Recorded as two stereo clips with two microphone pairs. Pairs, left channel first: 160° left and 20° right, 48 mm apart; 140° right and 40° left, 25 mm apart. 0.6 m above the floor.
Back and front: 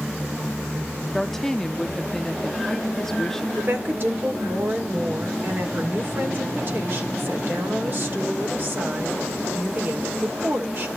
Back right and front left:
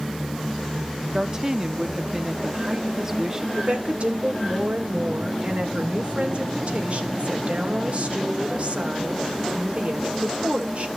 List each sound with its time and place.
1.1 s a woman speaking: 80° left, 0.7 m
3.6 s a woman speaking: 15° left, 1.9 m